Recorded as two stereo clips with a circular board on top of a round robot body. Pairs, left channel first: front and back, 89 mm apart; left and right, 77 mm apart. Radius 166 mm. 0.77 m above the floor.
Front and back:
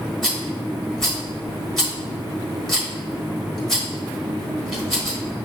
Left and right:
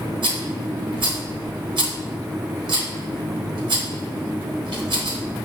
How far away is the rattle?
About 1.1 m.